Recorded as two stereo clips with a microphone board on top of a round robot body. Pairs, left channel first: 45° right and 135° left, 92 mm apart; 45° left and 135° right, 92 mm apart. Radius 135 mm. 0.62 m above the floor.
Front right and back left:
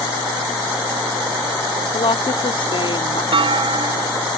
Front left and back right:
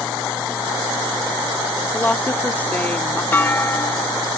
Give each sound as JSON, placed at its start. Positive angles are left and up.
{"t": 1.9, "sound": "a woman speaking", "azimuth_deg": -25}
{"t": 3.3, "sound": "a clunk", "azimuth_deg": 115}